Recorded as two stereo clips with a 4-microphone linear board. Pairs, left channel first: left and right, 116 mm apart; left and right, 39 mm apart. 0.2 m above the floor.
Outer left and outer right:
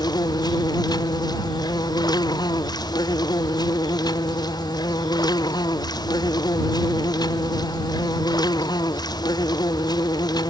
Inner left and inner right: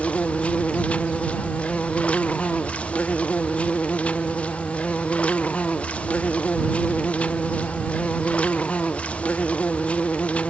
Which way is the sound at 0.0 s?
35° left (ahead or behind).